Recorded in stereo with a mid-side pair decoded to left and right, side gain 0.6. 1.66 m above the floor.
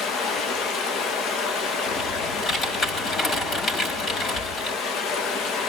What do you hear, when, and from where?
0.0 s running water: 55° left, 1.8 m
1.9 s typing on a keyboard: 40° left, 4.5 m